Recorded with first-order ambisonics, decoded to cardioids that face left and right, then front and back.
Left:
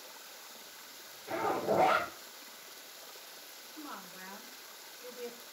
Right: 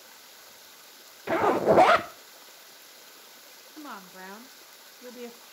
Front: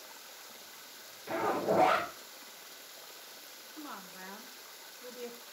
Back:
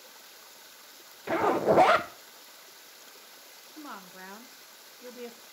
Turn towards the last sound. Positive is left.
turn(degrees=-120)